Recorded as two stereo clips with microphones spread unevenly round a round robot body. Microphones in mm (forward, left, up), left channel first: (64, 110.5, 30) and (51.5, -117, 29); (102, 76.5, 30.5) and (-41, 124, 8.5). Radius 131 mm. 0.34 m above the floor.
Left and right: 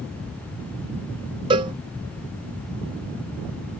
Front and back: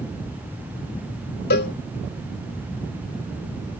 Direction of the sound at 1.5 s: 25° right.